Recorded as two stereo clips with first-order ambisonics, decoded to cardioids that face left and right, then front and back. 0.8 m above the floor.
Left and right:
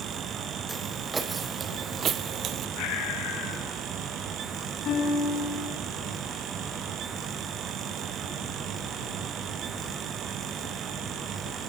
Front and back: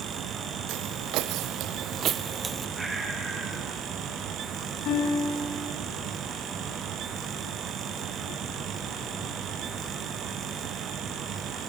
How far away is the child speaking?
I don't hear a child speaking.